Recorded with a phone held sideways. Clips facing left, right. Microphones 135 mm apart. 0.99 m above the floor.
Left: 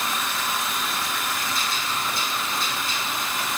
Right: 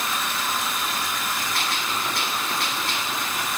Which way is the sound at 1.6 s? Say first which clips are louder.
Right 1 dB; 70° right (ahead or behind).